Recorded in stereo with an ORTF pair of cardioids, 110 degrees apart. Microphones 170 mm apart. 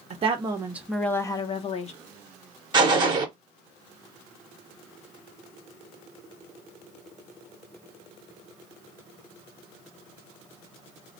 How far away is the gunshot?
About 0.8 m.